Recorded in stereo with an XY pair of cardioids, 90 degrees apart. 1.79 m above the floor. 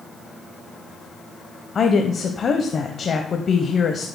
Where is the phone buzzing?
I don't hear a phone buzzing.